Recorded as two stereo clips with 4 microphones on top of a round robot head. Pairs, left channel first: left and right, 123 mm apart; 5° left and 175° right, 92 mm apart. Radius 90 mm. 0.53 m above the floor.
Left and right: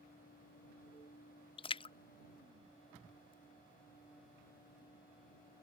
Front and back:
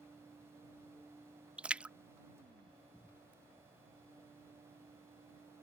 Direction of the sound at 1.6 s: 105° left.